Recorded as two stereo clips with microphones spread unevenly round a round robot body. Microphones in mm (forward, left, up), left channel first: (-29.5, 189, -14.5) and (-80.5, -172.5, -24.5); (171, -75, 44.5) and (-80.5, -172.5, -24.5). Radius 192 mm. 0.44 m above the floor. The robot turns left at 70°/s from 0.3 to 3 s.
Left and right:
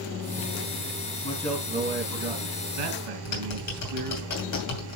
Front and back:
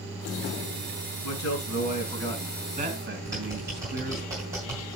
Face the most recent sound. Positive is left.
turn(degrees=125)